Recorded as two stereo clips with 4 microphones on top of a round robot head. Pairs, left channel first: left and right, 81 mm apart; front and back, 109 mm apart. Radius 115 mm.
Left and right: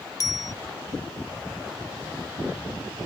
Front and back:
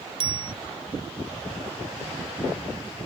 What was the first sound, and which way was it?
A bicycle bell, 135° left.